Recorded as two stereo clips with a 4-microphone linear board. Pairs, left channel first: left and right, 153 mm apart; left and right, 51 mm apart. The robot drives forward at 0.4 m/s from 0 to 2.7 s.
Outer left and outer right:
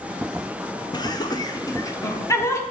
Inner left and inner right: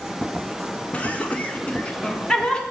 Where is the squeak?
No squeak in this recording.